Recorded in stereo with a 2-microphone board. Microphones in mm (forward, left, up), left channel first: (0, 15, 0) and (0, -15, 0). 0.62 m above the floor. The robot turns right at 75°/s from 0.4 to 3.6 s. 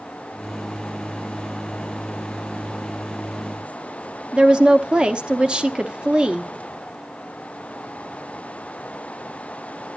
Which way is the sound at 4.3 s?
35° right (ahead or behind).